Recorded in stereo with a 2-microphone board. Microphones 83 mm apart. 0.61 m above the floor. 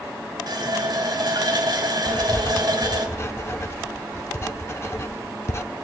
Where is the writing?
30° left (ahead or behind), 0.6 m.